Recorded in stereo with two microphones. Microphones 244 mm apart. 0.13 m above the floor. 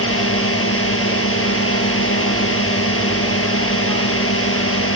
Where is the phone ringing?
I don't hear a phone ringing.